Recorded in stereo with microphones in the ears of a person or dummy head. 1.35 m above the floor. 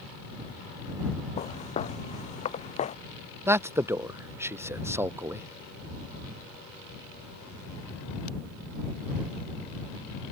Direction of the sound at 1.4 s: 35° left (ahead or behind).